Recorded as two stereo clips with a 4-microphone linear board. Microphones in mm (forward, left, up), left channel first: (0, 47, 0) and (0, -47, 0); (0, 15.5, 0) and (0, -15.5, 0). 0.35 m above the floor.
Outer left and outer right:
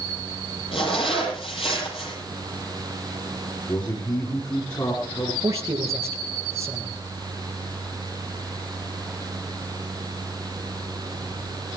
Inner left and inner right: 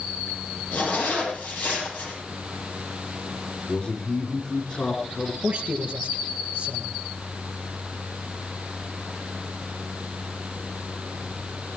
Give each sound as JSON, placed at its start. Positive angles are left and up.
{"t": 0.7, "sound": "a zipper", "side_deg": 80, "distance_m": 9.5}
{"t": 3.7, "sound": "a man speaking", "side_deg": 45, "distance_m": 5.0}
{"t": 5.4, "sound": "a man speaking", "side_deg": -30, "distance_m": 5.0}